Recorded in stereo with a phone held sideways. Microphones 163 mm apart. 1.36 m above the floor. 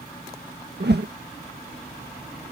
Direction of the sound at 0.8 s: 85° right.